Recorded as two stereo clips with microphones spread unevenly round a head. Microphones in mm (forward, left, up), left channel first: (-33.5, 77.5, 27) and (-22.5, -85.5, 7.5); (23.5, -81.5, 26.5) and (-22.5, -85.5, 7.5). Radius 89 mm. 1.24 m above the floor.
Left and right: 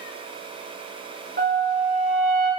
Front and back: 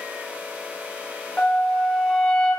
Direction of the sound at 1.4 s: 45° right.